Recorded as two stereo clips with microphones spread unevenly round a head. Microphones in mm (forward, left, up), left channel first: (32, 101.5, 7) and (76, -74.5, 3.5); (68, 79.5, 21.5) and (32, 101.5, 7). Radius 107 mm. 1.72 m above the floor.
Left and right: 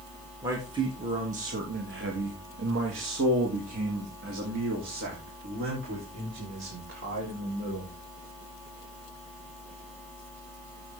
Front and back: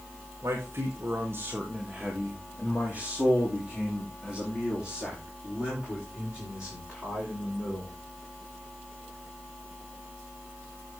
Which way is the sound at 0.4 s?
155° right.